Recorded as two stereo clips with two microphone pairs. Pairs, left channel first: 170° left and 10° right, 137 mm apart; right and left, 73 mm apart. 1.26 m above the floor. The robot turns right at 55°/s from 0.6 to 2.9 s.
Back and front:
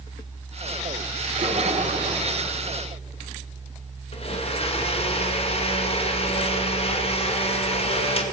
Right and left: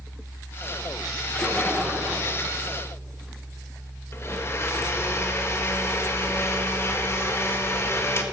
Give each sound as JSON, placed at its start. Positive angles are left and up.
{"t": 1.2, "sound": "a splash", "azimuth_deg": -25, "distance_m": 1.7}
{"t": 4.1, "sound": "a blender", "azimuth_deg": -145, "distance_m": 1.1}